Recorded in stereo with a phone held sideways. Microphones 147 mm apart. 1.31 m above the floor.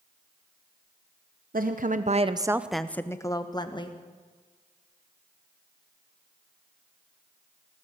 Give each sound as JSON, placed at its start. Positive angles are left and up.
{"t": 1.5, "sound": "a woman speaking", "side_deg": -75, "distance_m": 0.9}